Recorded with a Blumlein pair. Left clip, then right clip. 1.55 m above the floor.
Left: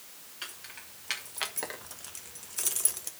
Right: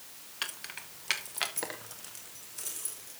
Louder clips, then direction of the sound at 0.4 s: Right 5 dB; 25° right.